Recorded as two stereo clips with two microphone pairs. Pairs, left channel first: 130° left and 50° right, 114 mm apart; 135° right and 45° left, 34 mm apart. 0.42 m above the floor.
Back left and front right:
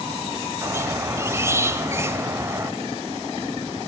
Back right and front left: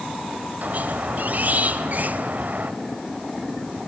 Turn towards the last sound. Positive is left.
turn(degrees=15)